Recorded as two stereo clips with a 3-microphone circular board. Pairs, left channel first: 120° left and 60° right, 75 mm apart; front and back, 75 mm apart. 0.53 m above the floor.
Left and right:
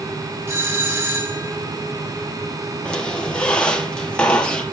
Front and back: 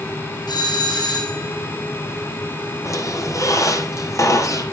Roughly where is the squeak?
Ahead left.